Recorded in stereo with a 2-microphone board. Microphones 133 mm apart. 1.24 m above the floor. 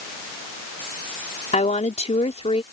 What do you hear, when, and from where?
1.5 s a woman speaking: 60° left (ahead or behind); by 2.6 s 50° left (ahead or behind)